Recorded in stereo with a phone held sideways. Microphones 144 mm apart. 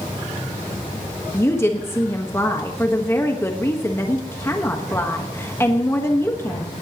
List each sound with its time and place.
1.3 s a woman speaking: 20° left (ahead or behind), 1.3 m